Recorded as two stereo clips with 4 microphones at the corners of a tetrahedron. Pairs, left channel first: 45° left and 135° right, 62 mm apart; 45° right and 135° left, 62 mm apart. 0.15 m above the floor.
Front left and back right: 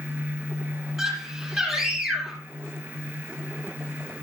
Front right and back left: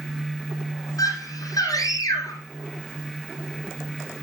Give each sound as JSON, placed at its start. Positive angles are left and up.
{"t": 1.0, "sound": "a scream", "azimuth_deg": -50, "distance_m": 6.0}